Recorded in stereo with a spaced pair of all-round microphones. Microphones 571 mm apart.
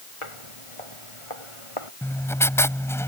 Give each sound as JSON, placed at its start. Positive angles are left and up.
{"t": 0.2, "sound": "footsteps", "side_deg": 60}
{"t": 2.0, "sound": "writing", "side_deg": 5}